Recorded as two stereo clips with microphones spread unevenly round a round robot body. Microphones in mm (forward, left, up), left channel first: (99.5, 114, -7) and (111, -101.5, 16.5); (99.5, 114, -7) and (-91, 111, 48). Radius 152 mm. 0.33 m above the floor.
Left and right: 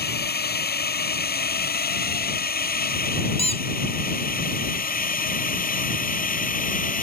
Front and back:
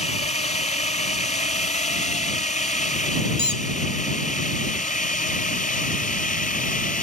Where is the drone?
55° left; by 7.0 s 45° left.